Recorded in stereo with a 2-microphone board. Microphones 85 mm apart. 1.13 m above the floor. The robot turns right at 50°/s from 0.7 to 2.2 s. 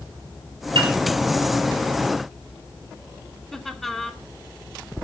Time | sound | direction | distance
0.8 | a piano | 75° right (ahead or behind) | 3 m
3.5 | laughter | 5° left (ahead or behind) | 2.5 m